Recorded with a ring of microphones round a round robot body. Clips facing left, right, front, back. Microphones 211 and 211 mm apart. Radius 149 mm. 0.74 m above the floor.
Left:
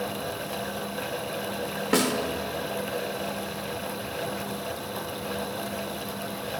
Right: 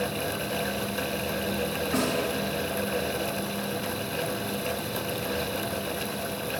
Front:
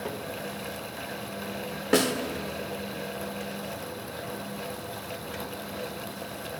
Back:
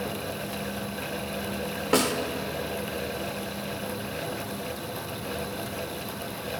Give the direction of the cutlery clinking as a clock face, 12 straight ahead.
I don't hear cutlery clinking.